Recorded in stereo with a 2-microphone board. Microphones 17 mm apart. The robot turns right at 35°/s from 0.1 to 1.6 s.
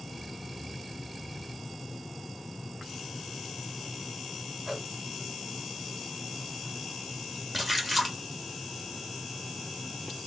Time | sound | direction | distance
4.7 | a whoosh | 20° right (ahead or behind) | 2 m
7.5 | a splash | centre (ahead or behind) | 1.6 m